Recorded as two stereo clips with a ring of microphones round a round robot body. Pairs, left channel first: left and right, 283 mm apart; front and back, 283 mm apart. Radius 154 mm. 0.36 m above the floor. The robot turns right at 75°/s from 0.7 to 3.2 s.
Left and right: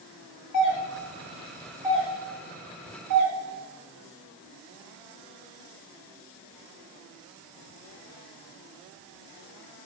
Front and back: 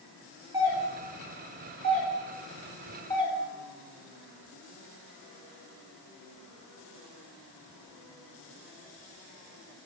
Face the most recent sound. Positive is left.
turn(degrees=-70)